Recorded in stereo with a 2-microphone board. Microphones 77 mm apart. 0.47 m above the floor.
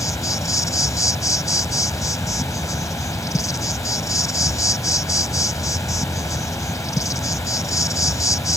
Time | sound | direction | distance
0.0 | an insect | 45° left (ahead or behind) | ?